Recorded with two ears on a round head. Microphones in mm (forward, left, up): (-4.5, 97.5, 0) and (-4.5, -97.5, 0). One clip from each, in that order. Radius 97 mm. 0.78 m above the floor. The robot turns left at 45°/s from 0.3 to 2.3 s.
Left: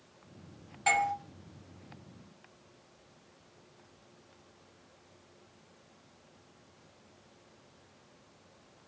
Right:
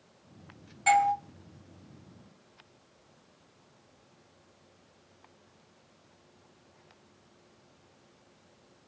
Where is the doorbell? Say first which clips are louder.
Right 5 dB; 10° left (ahead or behind), 1.8 m; by 1.1 s 20° left (ahead or behind), 1.8 m.